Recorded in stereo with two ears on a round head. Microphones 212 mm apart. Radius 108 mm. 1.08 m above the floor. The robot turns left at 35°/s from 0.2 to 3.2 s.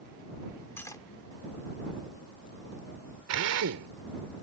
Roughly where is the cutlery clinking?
Centre.